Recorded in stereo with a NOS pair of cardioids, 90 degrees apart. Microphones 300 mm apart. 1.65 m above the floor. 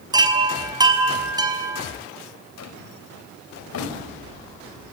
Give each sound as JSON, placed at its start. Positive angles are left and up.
{"t": 0.1, "sound": "a chime", "azimuth_deg": -15, "distance_m": 5.0}
{"t": 2.6, "sound": "a drawer", "azimuth_deg": 60, "distance_m": 5.5}